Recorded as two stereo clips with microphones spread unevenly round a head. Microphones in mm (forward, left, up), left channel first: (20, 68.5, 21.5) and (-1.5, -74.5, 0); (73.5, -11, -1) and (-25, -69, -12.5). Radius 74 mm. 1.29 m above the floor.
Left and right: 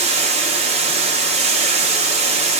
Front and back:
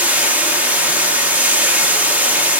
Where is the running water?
70° right, 0.8 m.